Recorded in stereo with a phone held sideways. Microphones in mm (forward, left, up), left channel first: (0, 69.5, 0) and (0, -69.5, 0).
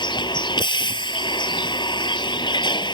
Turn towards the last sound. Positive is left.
turn(degrees=35)  # may be behind; listen again after turning